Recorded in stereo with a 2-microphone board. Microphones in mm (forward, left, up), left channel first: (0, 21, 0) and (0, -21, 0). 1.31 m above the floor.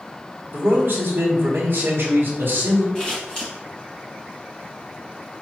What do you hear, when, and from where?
0.5 s a man speaking: 55° right (ahead or behind), 1.4 m
3.0 s scissors: 20° left (ahead or behind), 1.8 m